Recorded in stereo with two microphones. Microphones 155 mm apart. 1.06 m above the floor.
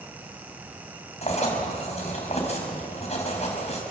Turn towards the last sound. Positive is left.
turn(degrees=45)  # may be behind; listen again after turning